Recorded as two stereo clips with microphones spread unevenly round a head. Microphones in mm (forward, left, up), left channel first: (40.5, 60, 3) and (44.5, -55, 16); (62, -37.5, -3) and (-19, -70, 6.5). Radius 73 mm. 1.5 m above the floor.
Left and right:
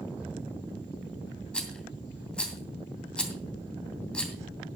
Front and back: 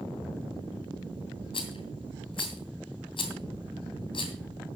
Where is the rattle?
10° left, 2.5 m.